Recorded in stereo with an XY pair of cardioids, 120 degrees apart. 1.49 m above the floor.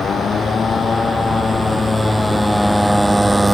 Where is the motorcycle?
35° left; by 3.5 s 15° right.